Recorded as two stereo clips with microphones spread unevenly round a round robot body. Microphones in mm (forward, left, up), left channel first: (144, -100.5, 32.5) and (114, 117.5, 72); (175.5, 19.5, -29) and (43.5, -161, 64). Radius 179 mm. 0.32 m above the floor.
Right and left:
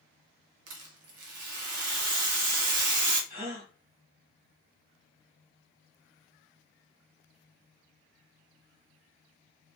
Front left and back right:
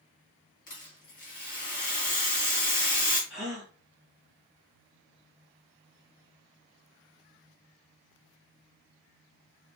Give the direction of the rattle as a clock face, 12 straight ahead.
9 o'clock.